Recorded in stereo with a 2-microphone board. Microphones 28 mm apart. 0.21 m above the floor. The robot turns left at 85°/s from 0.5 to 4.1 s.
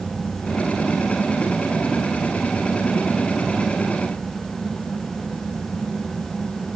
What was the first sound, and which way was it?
Only background noise.